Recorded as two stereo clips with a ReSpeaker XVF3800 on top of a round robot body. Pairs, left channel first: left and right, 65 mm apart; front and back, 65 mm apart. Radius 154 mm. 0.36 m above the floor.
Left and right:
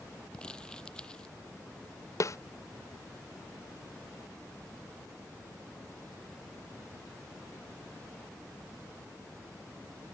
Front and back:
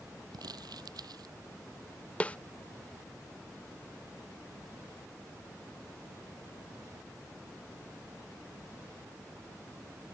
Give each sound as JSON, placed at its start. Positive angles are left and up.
{"t": 0.3, "sound": "crumpling", "azimuth_deg": 165}
{"t": 2.2, "sound": "a snare drum", "azimuth_deg": 65}